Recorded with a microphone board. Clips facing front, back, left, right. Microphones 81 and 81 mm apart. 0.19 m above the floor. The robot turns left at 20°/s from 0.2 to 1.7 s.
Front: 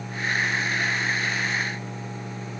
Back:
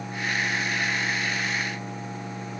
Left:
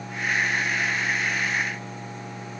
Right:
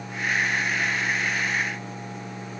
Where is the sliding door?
I don't hear a sliding door.